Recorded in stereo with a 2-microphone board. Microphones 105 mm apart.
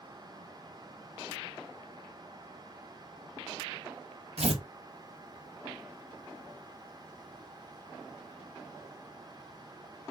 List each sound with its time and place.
4.4 s tearing paper: 70° right (ahead or behind), 0.5 m